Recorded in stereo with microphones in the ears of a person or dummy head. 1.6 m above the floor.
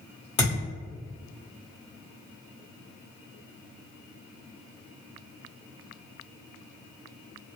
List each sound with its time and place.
0.4 s a thud: 35° left (ahead or behind), 1.6 m